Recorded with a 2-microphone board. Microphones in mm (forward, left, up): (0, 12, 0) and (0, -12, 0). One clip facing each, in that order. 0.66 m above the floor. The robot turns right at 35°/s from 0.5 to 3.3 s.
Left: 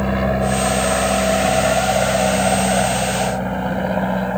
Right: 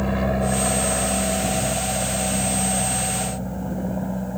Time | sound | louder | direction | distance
0.0 | an aircraft | left 4 dB | 20° left (ahead or behind) | ?